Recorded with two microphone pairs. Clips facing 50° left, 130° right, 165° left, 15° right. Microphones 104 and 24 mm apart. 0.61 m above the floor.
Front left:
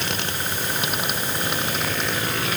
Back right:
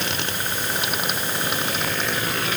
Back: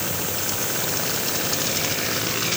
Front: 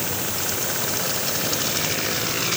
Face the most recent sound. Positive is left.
No sound to turn to.